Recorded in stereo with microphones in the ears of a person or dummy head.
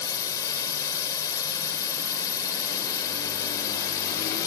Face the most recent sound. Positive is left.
turn(degrees=15)  # may be behind; listen again after turning